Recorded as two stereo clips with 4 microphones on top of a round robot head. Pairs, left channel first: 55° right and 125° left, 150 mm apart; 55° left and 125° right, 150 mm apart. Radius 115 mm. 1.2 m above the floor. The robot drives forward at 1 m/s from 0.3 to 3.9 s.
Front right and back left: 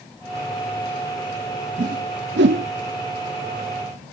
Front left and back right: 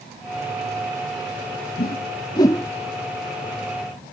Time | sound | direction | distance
1.8 | a whoosh | 85° left | ?